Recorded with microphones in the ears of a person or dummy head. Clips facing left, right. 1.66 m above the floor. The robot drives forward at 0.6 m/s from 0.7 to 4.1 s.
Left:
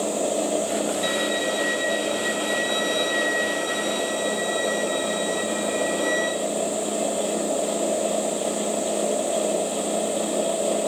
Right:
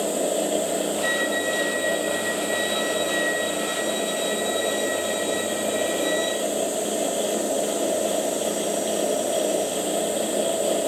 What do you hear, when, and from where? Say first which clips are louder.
1.0 s a violin: even; 45° left (ahead or behind), 1.9 m; by 6.3 s 70° left (ahead or behind), 1.4 m